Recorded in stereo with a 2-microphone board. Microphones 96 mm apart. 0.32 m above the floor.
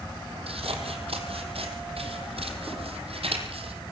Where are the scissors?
80° right, 3 m.